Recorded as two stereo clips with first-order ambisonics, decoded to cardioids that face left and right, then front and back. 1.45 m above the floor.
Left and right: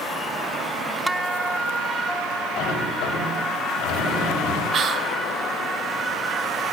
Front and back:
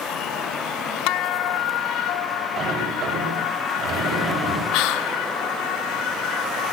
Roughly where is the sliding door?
Behind left.